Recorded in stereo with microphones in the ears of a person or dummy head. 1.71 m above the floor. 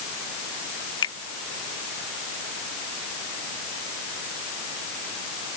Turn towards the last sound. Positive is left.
turn(degrees=30)  # may be behind; listen again after turning